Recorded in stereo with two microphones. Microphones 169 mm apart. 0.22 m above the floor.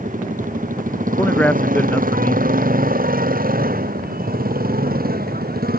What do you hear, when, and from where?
0.0 s a motorcycle: 55° right (ahead or behind); by 5.8 s 65° right (ahead or behind)
1.2 s a man speaking: 10° left (ahead or behind)